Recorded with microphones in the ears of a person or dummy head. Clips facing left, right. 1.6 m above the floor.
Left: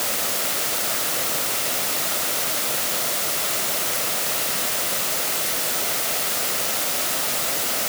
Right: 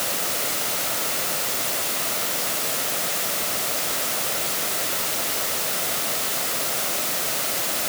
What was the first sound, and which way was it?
Only background noise.